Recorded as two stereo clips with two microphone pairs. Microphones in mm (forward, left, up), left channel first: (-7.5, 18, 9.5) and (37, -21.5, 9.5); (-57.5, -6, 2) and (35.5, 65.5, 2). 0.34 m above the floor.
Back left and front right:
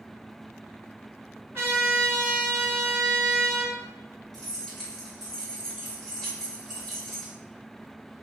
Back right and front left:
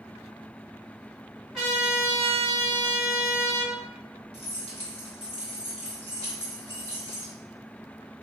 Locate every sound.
1.5 s a trumpet: 50° right, 1.7 m
4.3 s keys jangling: 135° right, 1.3 m